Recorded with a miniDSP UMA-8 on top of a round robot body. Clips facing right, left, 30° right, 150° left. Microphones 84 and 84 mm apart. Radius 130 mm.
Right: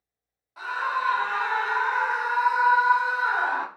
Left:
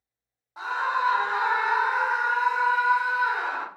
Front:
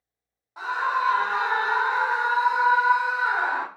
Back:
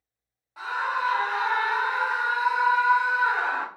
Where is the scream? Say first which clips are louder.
Left 1 dB, front 3 dB; 30° left, 1.5 m; by 3.7 s 100° right, 1.1 m.